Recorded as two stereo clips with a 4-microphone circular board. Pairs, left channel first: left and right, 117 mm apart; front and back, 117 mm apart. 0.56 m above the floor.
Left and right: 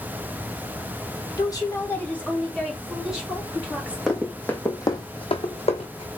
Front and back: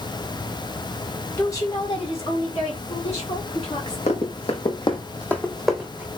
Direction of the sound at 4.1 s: Straight ahead.